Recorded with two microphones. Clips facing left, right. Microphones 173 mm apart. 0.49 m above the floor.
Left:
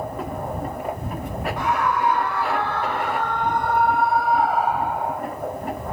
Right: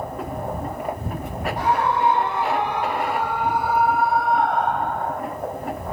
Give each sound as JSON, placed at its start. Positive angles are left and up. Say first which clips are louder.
{"t": 1.6, "sound": "a scream", "louder": "right 2 dB", "side_deg": -35}